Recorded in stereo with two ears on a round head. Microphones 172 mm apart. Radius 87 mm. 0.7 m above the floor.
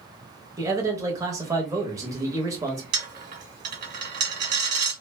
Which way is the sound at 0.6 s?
15° right (ahead or behind).